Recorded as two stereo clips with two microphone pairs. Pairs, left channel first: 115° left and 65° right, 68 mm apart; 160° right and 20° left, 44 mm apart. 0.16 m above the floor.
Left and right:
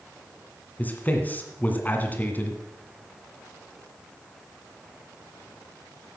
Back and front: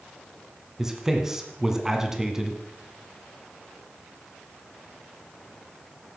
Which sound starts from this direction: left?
A man speaking, at 0.8 s.